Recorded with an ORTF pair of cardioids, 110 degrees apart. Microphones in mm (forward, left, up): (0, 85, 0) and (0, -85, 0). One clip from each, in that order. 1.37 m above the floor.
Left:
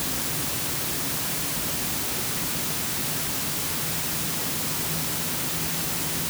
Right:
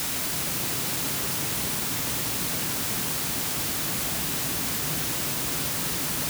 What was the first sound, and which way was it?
Only background noise.